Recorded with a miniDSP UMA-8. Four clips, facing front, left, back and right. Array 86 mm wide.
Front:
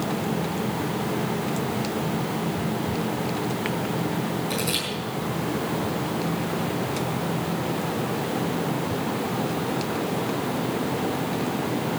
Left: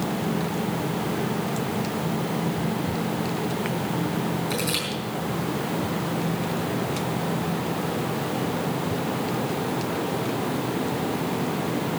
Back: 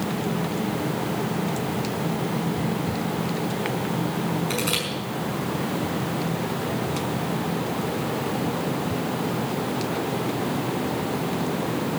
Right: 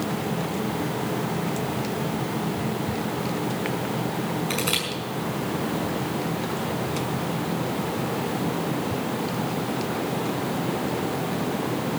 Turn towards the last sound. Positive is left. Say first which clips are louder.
# even, back 1 dB
turn(degrees=-120)